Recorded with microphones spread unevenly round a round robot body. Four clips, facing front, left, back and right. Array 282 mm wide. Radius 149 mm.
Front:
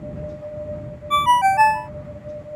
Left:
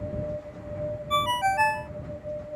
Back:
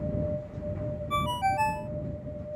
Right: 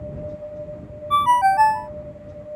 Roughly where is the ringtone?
Ahead right.